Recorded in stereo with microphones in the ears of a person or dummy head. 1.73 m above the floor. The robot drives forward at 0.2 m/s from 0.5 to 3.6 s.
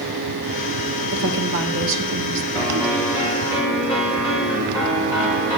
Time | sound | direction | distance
1.1 | a woman speaking | 65° right (ahead or behind) | 1.6 m
2.5 | a piano | 15° right (ahead or behind) | 5 m